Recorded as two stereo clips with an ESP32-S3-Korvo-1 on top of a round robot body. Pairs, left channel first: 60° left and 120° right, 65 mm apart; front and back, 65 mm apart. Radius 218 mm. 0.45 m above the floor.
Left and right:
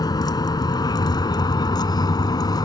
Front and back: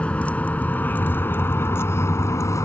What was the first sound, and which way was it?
A vehicle, 70° left.